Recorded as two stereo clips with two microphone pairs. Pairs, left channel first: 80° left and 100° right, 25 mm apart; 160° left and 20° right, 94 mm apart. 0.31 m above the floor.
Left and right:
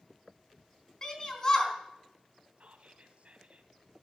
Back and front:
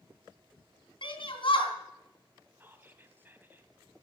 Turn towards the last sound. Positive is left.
turn(degrees=-85)